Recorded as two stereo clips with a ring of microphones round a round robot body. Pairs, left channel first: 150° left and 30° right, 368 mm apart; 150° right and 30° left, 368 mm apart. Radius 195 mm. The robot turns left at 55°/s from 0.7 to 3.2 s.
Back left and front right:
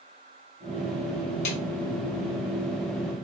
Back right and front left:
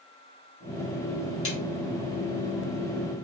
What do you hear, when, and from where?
1.4 s a snare drum: 170° left, 1.1 m; by 1.6 s 165° left, 1.1 m